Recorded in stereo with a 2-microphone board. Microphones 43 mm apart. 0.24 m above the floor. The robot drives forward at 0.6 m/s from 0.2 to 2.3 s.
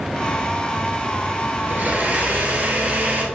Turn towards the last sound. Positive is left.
turn(degrees=-35)  # may be behind; listen again after turning